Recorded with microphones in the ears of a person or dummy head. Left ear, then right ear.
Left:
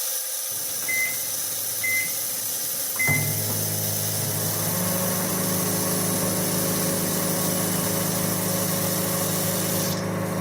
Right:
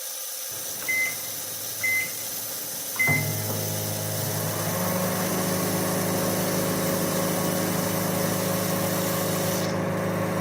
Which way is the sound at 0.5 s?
10° right (ahead or behind).